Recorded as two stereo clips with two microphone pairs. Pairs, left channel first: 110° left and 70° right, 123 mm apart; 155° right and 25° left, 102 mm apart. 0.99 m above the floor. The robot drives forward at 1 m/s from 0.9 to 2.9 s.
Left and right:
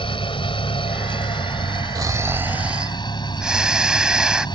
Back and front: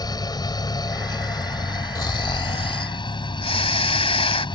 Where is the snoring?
120° right; by 4.5 s 150° right.